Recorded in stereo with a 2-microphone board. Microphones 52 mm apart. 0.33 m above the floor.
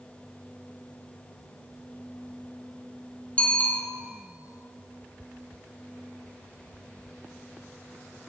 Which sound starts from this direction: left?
A bicycle bell, at 3.4 s.